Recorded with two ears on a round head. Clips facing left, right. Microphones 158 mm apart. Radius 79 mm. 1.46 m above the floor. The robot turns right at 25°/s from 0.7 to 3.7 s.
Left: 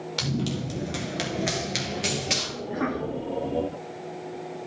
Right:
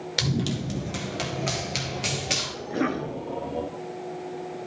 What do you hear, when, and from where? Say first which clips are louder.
0.2 s running footsteps: right 1 dB; 15° right (ahead or behind), 1.5 m; by 2.5 s 5° right (ahead or behind), 2 m
2.6 s a cough: right 2 dB; 40° right (ahead or behind), 0.8 m; by 3.2 s 25° right (ahead or behind), 0.8 m